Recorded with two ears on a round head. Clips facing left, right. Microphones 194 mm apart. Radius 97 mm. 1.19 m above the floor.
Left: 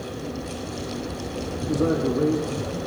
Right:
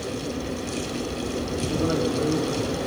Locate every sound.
1.7 s a man speaking: 40° left (ahead or behind), 3 m